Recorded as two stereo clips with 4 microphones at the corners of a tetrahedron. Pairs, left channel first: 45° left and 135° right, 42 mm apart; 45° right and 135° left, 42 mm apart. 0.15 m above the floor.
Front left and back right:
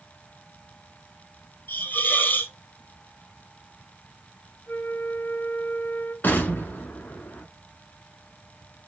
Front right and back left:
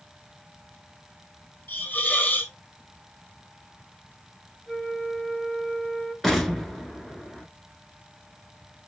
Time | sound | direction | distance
1.7 | a hiss | 5° left | 1.0 m
4.7 | a flute | 40° left | 1.7 m
6.2 | an explosion | 45° left | 1.3 m